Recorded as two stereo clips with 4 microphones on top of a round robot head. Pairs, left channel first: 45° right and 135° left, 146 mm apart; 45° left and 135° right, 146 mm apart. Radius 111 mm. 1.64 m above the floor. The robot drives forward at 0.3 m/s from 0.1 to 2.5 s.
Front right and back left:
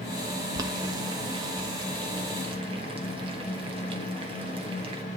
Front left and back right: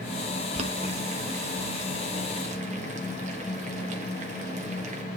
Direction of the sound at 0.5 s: 165° right.